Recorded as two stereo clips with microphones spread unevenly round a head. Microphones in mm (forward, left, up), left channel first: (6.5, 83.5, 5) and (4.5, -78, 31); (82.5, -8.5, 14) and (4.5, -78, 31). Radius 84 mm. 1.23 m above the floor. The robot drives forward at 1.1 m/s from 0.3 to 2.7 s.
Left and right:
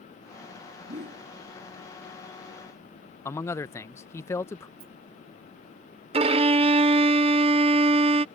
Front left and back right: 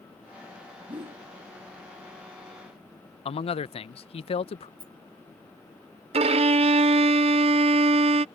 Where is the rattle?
75° right.